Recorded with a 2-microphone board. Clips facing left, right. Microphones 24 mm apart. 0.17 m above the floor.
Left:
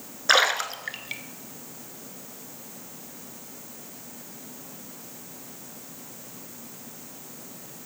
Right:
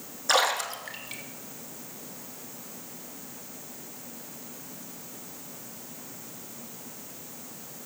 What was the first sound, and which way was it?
A splash, 35° left (ahead or behind).